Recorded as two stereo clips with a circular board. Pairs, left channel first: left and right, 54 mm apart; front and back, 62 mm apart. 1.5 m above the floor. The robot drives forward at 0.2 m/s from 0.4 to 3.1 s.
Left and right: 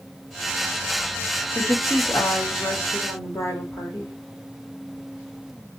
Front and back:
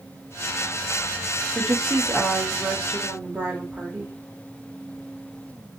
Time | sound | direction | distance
1.6 | a woman speaking | 110° left | 1.6 m